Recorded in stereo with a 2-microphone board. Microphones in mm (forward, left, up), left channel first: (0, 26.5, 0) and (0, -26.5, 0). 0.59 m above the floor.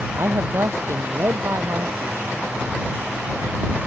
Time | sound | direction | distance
0.2 | a man speaking | 55° right (ahead or behind) | ?